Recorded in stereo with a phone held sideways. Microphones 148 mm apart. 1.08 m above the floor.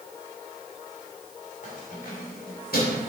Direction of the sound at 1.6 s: 50° left (ahead or behind).